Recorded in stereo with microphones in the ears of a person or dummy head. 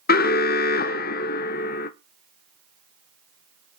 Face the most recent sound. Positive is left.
turn(degrees=40)  # may be behind; listen again after turning